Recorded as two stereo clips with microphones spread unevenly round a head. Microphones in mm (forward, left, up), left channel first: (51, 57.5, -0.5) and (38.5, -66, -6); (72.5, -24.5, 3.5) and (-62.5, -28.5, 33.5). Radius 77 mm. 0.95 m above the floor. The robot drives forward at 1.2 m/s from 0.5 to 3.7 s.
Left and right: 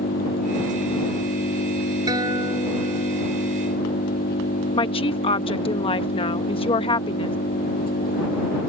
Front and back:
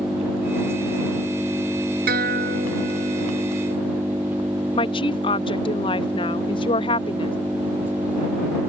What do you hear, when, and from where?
0.0 s an engine running: 95° left; by 8.7 s 100° left
2.1 s a guitar: 165° right; by 3.2 s 170° right
4.7 s a woman speaking: 45° left